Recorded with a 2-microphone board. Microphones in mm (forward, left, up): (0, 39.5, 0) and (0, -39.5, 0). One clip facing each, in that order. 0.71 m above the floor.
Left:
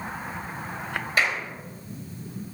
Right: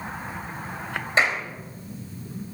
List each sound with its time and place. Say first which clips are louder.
1.2 s a clap: right 3 dB; 25° right (ahead or behind), 3.5 m